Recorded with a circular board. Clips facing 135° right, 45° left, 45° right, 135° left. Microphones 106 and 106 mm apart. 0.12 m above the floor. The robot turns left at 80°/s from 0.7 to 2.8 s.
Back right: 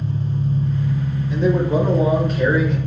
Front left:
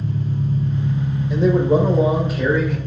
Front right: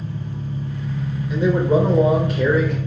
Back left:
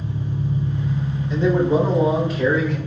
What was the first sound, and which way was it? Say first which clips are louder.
An engine running: even, back left 3 dB; 70° left.